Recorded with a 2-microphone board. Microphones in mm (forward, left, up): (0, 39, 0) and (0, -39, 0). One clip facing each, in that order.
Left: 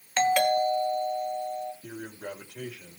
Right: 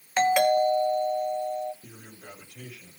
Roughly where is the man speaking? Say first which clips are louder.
Left 8 dB; left.